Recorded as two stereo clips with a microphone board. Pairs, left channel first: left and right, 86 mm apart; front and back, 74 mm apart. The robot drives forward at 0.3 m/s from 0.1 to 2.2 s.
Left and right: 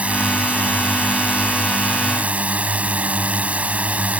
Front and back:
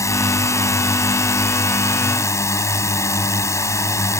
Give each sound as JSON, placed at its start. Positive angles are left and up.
{"t": 0.0, "sound": "a drone", "azimuth_deg": -20}